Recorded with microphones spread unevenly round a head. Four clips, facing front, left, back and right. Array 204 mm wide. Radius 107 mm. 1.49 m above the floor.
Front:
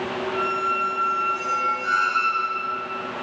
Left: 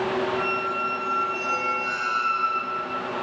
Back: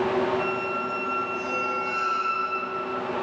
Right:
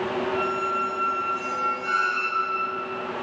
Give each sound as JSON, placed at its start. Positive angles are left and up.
{"t": 0.3, "sound": "a squeak", "azimuth_deg": 25, "distance_m": 7.0}